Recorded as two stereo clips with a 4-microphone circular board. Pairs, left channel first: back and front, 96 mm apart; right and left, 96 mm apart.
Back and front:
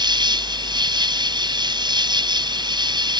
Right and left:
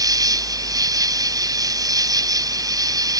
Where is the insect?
40° left.